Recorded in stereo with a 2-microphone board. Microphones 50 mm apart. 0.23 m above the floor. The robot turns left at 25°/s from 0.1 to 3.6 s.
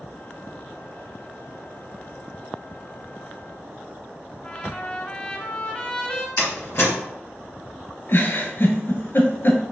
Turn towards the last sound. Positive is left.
turn(degrees=45)  # may be behind; listen again after turning